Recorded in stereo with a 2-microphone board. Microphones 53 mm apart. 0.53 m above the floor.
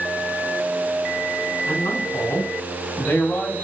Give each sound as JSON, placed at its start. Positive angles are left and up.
{"t": 1.7, "sound": "a man speaking", "side_deg": 60, "distance_m": 4.0}